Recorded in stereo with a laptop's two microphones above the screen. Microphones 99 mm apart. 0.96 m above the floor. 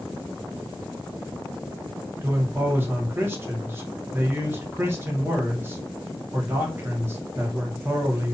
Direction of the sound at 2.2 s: 25° right (ahead or behind).